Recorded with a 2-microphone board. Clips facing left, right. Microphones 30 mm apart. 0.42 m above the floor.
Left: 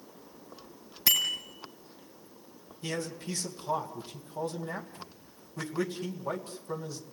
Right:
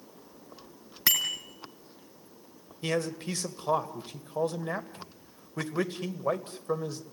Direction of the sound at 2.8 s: 50° right (ahead or behind).